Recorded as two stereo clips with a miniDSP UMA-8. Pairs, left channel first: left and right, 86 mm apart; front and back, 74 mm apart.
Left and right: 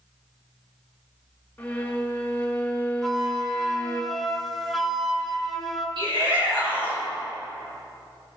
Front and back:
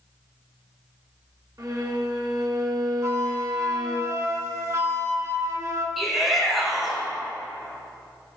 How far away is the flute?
About 0.9 m.